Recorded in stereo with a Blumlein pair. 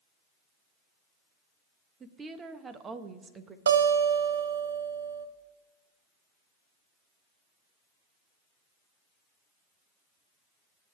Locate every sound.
2.0 s a woman speaking: 20° right, 0.9 m
3.7 s a guitar: 70° right, 0.6 m